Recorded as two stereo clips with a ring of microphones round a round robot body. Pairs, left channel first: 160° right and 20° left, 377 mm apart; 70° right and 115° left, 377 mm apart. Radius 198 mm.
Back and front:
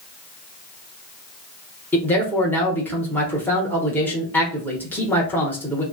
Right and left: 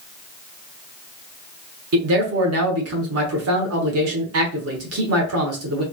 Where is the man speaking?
120° left, 1.0 m.